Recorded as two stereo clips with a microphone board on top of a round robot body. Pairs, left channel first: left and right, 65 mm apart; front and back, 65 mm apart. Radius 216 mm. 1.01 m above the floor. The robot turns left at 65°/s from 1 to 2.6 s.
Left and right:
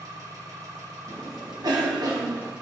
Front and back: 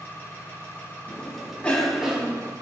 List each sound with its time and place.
0.0 s an engine running: 60° right, 3 m; by 2.6 s 165° right, 3 m
1.1 s a cough: 35° right, 2.5 m; by 2.5 s 130° right, 2.5 m